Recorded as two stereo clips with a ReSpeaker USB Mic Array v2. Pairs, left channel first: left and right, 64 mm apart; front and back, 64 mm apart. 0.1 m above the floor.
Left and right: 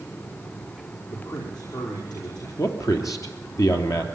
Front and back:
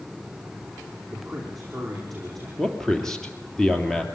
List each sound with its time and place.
1.1 s a man speaking: 85° left, 5 m
2.6 s a man speaking: 80° left, 2.5 m